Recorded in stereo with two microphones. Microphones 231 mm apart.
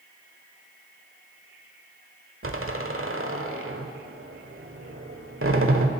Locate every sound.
2.4 s a door slam: 65° right (ahead or behind), 1.3 m